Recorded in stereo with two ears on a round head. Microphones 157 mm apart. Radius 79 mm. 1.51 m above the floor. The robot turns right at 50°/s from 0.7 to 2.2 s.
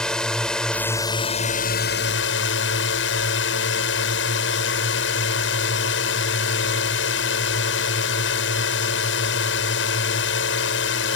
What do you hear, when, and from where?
0.0 s a drone: 5° left; by 11.2 s 80° left